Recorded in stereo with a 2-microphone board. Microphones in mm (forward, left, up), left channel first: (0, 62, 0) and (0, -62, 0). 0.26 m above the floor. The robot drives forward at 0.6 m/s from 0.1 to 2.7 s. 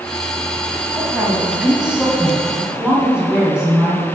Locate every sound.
0.9 s a woman speaking: 10° right (ahead or behind), 1.8 m; by 4.0 s 5° right (ahead or behind), 2.5 m